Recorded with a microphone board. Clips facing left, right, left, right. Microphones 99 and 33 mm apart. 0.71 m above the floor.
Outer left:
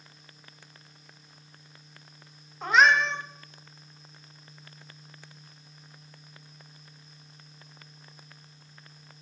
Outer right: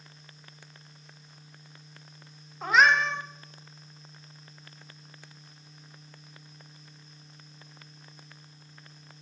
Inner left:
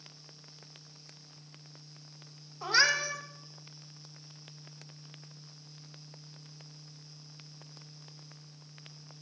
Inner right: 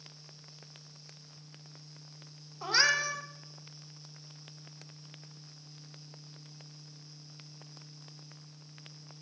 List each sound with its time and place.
2.6 s a cat meowing: centre (ahead or behind), 0.8 m